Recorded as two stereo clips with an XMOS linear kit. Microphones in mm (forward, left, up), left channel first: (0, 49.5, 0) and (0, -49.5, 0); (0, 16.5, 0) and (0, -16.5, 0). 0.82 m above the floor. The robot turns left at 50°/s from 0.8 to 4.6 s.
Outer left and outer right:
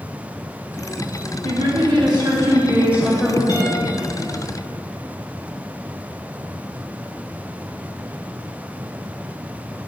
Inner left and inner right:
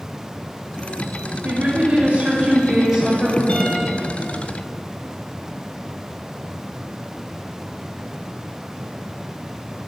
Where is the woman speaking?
90° right, 2 m; by 3.4 s 175° left, 2 m.